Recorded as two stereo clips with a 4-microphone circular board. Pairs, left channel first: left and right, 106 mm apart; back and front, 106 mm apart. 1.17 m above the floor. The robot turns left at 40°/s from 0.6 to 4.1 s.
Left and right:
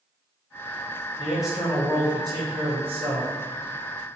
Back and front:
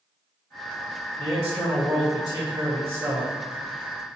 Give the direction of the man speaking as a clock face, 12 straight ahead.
12 o'clock.